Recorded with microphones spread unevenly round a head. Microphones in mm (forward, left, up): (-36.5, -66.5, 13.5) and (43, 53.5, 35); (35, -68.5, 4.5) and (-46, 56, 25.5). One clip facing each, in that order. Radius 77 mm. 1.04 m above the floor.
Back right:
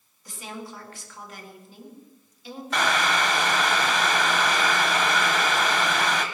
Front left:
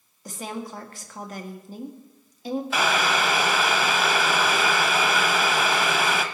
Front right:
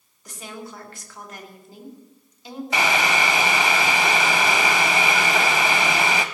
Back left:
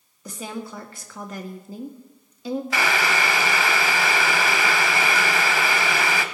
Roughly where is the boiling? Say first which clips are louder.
Back right 1 dB, front right 4 dB; ahead.